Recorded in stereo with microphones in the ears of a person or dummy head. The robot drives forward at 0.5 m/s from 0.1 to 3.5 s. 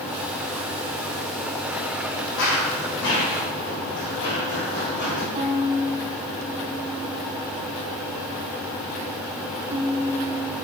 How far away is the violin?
About 2.5 m.